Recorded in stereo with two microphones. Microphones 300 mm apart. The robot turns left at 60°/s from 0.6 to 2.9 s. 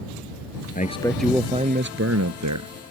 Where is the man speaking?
30° left; by 2.7 s 90° right.